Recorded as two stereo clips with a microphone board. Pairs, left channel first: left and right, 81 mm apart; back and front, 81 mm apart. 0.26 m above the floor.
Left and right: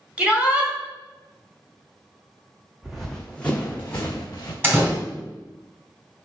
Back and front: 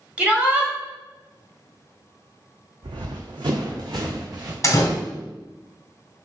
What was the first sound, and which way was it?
A shout, 45° right.